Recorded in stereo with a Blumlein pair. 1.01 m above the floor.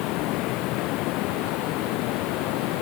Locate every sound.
0.0 s running water: 40° left